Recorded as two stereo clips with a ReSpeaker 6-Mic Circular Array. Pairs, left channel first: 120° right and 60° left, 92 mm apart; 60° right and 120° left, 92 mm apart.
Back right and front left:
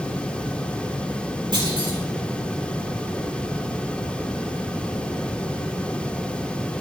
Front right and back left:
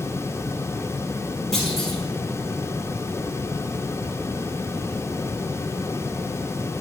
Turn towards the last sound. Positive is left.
turn(degrees=25)